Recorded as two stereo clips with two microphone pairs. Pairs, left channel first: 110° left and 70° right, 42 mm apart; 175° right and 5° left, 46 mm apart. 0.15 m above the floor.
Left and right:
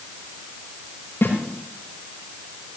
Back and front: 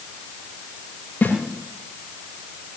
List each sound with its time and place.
1.2 s a snare drum: 145° left, 9 m